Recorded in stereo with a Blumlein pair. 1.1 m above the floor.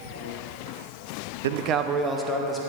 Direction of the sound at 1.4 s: 60° right.